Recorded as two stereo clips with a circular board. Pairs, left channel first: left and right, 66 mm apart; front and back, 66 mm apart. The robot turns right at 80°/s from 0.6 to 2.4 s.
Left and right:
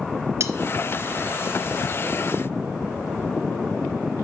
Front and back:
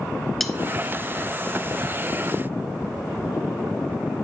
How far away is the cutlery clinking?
About 0.9 m.